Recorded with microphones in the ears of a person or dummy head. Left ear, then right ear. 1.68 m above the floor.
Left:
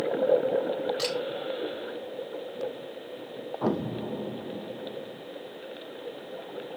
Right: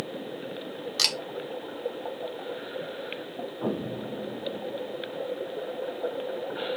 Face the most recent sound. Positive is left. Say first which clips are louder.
# left 3 dB
turn(degrees=45)  # may be behind; listen again after turning